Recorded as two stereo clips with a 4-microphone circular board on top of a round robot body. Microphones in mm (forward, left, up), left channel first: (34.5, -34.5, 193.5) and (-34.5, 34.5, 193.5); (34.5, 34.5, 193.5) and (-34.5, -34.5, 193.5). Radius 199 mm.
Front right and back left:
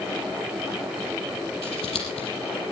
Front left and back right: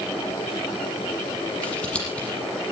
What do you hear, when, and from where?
1.6 s scissors: 30° right, 7 m